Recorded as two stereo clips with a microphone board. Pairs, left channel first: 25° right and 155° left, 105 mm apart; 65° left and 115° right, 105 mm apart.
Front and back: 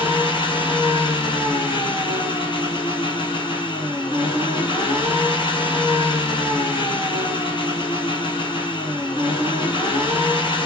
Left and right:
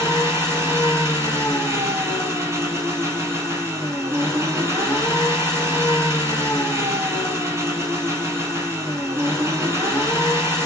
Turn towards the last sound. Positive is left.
turn(degrees=-55)